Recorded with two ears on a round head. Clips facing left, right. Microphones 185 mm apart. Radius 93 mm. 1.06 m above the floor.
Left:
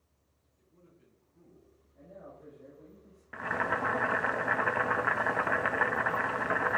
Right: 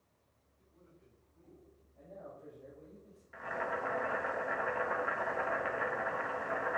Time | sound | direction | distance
0.6 | a man speaking | 45° left (ahead or behind) | 8.5 m
2.0 | a man speaking | 15° left (ahead or behind) | 7 m
3.3 | boiling | 75° left (ahead or behind) | 1.2 m